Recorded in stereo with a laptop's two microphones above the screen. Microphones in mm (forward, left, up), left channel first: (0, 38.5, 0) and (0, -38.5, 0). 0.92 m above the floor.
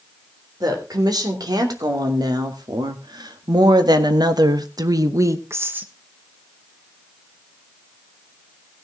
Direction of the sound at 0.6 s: 55° right (ahead or behind).